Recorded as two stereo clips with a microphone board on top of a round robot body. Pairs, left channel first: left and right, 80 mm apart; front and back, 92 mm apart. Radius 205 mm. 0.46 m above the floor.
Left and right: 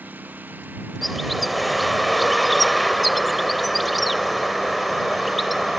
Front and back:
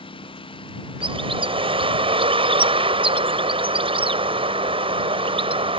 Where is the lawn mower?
20° right; by 5.8 s 25° right.